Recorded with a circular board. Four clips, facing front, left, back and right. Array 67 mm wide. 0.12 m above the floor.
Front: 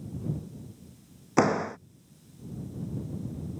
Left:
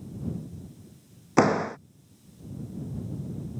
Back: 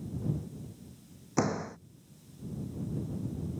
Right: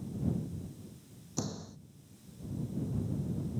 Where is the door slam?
65° left.